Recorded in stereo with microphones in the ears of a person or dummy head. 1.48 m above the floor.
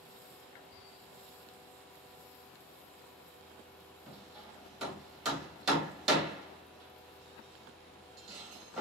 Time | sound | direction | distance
4.1 | hammering | 5° left (ahead or behind) | 2 m